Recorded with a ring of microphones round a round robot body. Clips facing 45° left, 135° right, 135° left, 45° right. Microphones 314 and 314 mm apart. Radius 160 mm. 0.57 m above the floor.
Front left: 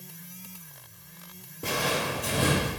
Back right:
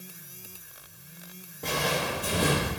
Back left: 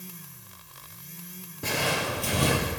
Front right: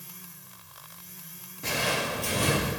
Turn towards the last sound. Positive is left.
turn(degrees=145)